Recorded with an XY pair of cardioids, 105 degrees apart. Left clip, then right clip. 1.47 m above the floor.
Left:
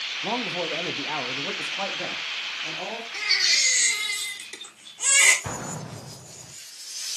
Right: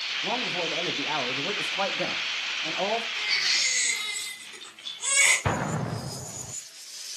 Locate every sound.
0.2 s a man speaking: 30° left, 1.6 m; by 3.0 s 50° right, 2.5 m
3.1 s a baby crying: 70° left, 2.5 m
5.5 s an explosion: 50° right, 0.6 m